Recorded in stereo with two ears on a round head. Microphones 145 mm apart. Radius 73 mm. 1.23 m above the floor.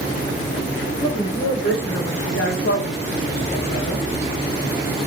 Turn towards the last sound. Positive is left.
turn(degrees=25)  # may be behind; listen again after turning